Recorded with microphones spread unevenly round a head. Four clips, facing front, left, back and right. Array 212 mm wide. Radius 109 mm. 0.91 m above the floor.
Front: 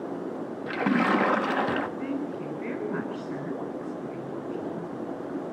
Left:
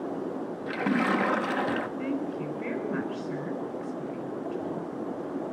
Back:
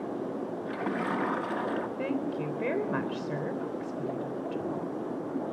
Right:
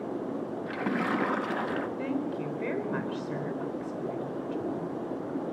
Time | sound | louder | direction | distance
0.7 | a splash | left 4 dB, front 9 dB | 20° left | 1.1 m
2.0 | a woman speaking | even, even | 175° right | 4 m